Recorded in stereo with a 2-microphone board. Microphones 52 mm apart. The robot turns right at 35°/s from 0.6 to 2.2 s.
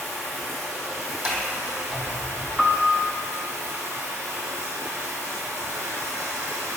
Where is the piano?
5° right (ahead or behind), 0.6 m.